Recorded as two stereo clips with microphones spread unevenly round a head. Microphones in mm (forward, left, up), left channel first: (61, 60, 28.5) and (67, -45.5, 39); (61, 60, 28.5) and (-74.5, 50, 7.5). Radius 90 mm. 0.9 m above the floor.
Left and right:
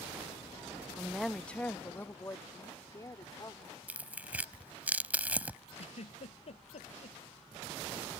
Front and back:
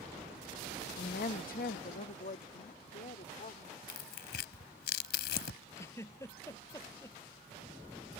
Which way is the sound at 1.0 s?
Straight ahead.